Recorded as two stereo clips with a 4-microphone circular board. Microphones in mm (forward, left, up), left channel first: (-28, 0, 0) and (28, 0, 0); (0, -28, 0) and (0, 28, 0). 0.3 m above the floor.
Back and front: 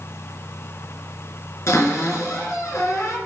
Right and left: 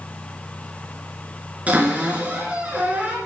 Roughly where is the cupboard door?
Behind left.